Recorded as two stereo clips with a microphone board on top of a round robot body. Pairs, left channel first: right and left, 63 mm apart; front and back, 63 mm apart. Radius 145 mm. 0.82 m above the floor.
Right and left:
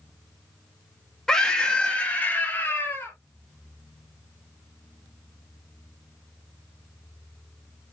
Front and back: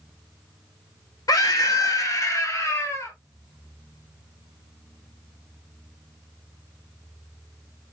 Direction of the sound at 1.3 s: 10° right.